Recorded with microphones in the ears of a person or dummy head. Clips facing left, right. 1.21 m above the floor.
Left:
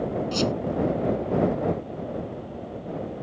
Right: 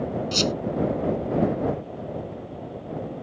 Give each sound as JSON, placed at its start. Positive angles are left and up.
{"t": 0.3, "sound": "a squeak", "side_deg": -30}